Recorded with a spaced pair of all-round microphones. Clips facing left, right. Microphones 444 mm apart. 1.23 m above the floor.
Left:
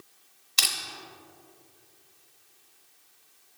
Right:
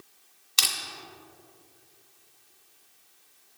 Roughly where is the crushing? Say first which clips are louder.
Even; centre.